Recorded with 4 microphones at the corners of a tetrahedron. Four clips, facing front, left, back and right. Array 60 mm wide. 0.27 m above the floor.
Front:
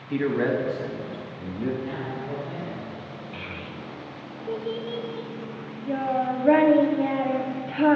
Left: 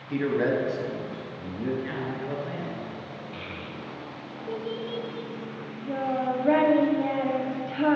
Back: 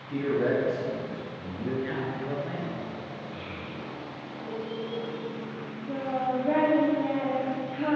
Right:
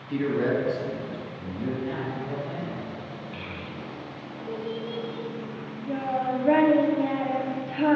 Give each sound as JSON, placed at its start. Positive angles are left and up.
{"t": 0.1, "sound": "a man speaking", "azimuth_deg": 15, "distance_m": 1.6}
{"t": 1.8, "sound": "a man speaking", "azimuth_deg": 140, "distance_m": 3.0}
{"t": 3.3, "sound": "a child speaking", "azimuth_deg": 5, "distance_m": 0.8}